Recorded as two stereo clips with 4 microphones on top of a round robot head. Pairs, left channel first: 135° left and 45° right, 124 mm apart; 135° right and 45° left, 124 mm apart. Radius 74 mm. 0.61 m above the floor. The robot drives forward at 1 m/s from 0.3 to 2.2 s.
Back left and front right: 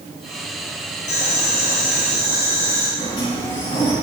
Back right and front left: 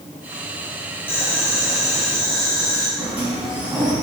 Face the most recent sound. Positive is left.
turn(degrees=125)